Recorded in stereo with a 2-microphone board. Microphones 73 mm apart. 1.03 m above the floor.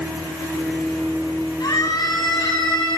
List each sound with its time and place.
1.6 s a scream: 60° left (ahead or behind), 7 m; by 3.0 s 80° left, 6.5 m